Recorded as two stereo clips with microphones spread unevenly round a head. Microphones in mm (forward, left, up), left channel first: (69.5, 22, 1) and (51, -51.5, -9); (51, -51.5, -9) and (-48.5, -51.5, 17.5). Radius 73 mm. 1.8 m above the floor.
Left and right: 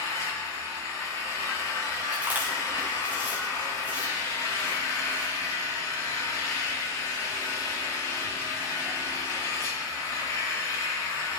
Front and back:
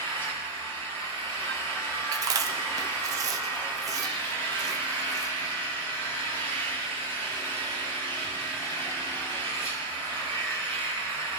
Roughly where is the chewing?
Behind.